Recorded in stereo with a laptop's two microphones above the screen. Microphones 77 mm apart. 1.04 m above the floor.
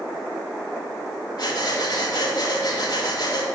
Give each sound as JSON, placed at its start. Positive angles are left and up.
{"t": 1.4, "sound": "breathing", "side_deg": 55, "distance_m": 1.2}